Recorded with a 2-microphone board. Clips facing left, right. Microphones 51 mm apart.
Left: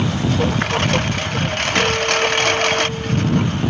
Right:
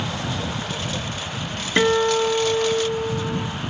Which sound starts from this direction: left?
A lawn mower, at 0.0 s.